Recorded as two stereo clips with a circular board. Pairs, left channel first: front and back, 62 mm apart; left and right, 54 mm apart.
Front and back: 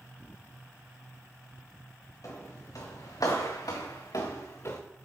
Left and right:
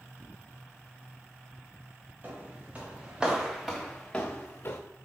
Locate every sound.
2.2 s footsteps: 30° right, 4 m; by 4.8 s 45° left, 2.5 m